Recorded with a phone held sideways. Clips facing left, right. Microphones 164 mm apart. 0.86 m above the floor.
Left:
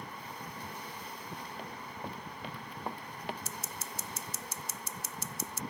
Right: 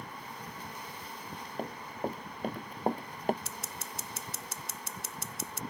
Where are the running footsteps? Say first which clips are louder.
Right 6 dB; 50° right (ahead or behind).